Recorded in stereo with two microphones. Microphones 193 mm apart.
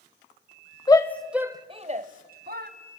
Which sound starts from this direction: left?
A shout, at 0.9 s.